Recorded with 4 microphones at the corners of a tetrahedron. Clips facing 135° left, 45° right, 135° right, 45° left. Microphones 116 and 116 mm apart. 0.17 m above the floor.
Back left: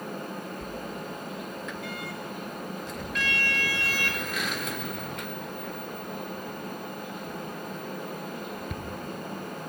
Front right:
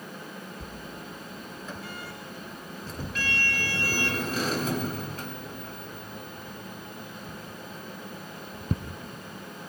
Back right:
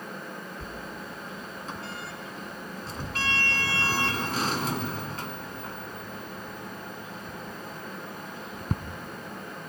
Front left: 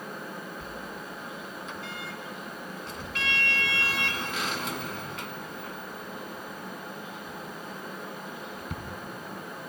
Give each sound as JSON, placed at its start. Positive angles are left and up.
{"t": 0.6, "sound": "a sliding door", "azimuth_deg": -90, "distance_m": 1.1}